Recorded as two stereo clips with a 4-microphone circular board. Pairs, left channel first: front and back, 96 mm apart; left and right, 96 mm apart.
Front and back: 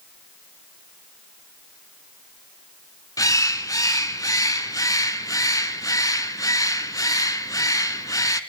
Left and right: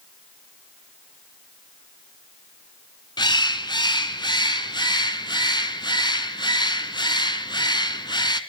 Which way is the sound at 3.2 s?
50° left.